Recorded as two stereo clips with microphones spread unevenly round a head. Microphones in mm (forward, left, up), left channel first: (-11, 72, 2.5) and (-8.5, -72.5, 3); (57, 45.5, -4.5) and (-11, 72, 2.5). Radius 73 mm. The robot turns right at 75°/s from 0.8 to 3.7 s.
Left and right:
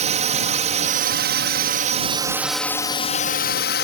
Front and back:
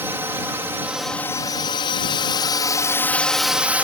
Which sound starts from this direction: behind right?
A drone, at 0.0 s.